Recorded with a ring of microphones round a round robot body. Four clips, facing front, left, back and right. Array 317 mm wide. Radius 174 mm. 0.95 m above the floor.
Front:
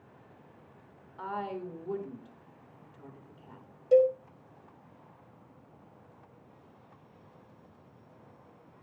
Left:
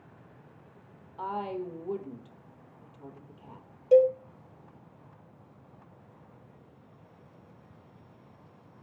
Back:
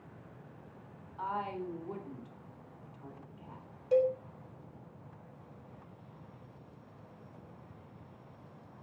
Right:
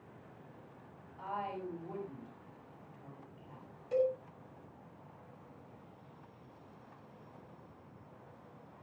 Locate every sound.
1.2 s a woman speaking: 65° left, 3.5 m
3.9 s a cowbell: 60° left, 4 m